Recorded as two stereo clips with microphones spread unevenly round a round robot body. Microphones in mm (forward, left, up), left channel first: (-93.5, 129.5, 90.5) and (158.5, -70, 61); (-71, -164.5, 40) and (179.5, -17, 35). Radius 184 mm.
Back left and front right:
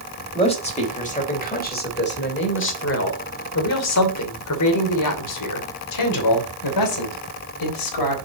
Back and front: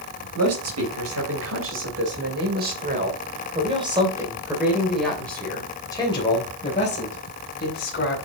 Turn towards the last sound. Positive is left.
turn(degrees=150)